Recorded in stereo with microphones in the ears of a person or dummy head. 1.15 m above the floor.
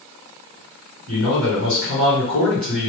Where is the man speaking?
65° right (ahead or behind), 1.8 m.